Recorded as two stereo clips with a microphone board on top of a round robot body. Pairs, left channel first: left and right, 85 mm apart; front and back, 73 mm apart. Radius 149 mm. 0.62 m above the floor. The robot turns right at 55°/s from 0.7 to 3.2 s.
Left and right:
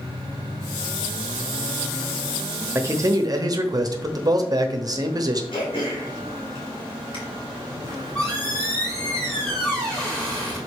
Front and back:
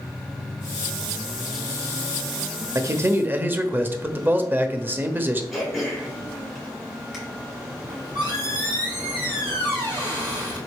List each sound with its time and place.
2.8 s a man speaking: 145° right, 1.1 m; by 5.4 s 120° right, 1.1 m
5.5 s throat clearing: 90° left, 3 m
7.9 s a squeak: 170° left, 3.5 m